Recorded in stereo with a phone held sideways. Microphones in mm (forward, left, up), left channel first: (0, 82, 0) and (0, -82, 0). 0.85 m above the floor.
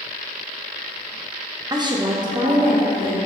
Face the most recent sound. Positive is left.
turn(degrees=-25)  # may be behind; listen again after turning